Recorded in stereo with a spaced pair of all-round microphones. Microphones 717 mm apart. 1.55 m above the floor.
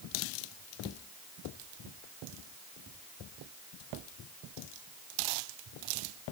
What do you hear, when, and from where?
Only background noise.